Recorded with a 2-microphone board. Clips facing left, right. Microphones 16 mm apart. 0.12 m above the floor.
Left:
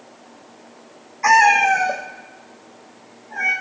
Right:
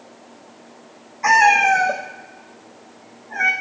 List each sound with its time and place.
1.2 s a cat meowing: 15° left (ahead or behind), 0.6 m; by 3.5 s 25° right (ahead or behind), 2 m